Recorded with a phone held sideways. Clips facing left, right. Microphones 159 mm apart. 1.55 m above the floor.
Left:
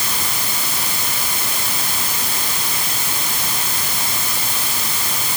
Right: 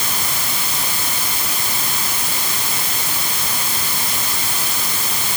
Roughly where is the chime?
No chime in this recording.